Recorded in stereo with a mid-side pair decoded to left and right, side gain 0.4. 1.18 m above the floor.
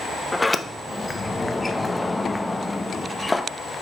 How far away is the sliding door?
About 0.8 m.